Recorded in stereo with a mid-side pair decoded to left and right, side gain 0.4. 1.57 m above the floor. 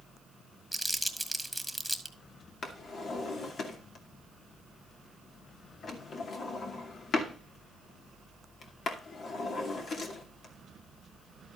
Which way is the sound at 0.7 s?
5° left.